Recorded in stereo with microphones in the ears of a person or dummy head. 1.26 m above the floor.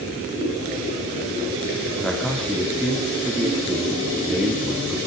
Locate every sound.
2.0 s a man speaking: 5° left (ahead or behind), 2.5 m